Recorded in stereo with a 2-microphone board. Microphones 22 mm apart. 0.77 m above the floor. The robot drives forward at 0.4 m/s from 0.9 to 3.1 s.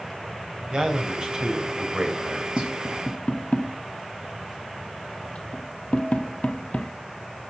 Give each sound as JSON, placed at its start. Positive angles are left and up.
{"t": 0.7, "sound": "a man speaking", "side_deg": -45, "distance_m": 3.5}
{"t": 2.6, "sound": "tapping", "side_deg": 55, "distance_m": 1.2}